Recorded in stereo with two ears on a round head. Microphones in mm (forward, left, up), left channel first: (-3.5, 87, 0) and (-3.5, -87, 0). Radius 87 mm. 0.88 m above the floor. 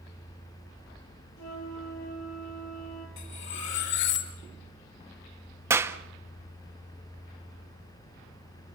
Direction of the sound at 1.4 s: 85° left.